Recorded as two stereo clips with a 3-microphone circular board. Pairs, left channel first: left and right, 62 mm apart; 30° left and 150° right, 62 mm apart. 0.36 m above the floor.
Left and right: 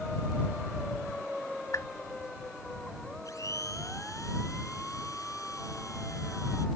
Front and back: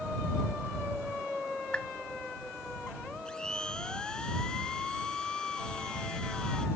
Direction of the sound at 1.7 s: 100° left.